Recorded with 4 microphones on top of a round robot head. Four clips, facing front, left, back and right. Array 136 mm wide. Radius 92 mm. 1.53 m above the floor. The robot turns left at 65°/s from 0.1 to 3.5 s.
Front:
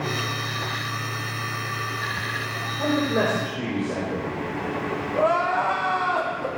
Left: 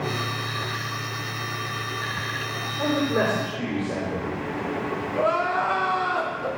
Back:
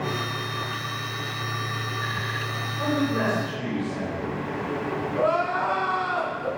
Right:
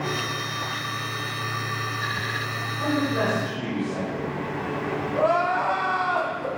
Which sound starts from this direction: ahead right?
Crying, at 5.1 s.